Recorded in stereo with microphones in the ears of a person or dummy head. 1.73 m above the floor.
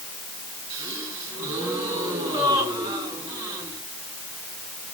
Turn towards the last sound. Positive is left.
turn(degrees=-20)  # may be behind; listen again after turning